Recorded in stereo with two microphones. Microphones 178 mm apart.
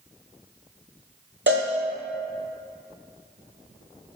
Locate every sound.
1.5 s a cowbell: 90° right, 2 m